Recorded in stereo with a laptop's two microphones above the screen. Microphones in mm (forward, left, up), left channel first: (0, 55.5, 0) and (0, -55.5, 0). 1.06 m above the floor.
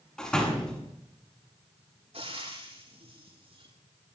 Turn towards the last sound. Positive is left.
turn(degrees=-60)  # may be behind; listen again after turning